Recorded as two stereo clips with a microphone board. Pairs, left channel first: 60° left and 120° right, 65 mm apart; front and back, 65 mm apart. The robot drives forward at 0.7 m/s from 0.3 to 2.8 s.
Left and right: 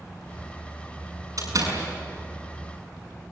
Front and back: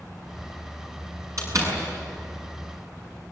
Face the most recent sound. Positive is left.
turn(degrees=-150)